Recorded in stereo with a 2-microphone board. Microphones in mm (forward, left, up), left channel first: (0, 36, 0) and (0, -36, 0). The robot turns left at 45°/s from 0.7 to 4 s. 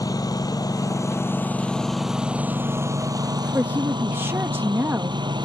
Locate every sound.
0.0 s a lawn mower: 55° left; by 5.5 s 90° right
3.5 s a woman speaking: 25° right (ahead or behind); by 5.3 s 30° right (ahead or behind)